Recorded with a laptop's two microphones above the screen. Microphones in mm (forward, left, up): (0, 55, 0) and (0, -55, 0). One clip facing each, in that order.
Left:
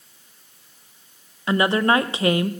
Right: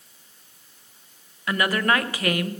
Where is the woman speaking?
25° left (ahead or behind), 0.5 m.